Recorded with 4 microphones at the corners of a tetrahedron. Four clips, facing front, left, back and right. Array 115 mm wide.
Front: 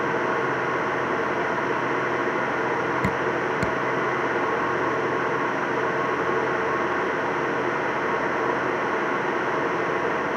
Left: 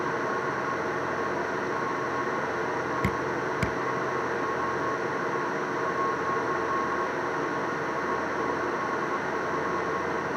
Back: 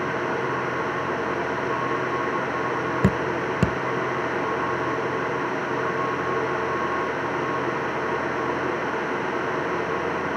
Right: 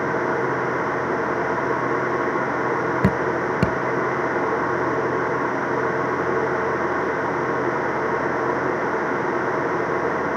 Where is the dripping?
125° right.